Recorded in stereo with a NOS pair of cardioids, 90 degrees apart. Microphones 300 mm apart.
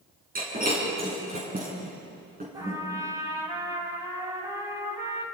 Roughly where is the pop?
I don't hear a pop.